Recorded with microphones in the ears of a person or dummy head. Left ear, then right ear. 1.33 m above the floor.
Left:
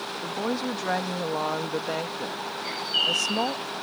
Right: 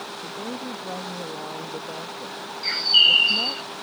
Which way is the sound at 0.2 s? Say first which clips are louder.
Left 7 dB; 60° left (ahead or behind).